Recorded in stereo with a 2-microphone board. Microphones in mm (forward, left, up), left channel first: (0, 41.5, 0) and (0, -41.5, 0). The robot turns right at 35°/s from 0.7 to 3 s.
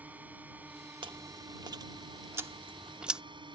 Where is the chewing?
80° right; by 3.2 s 10° right (ahead or behind).